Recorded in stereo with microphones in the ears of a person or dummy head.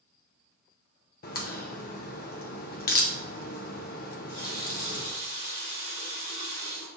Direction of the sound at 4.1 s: 70° left (ahead or behind).